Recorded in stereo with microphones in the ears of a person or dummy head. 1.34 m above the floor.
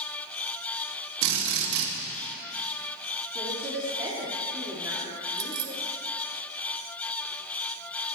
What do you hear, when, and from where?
1.2 s a drill: 70° right (ahead or behind), 3 m
3.4 s a woman speaking: 15° right (ahead or behind), 3 m
5.4 s keys jangling: 70° right (ahead or behind), 1.3 m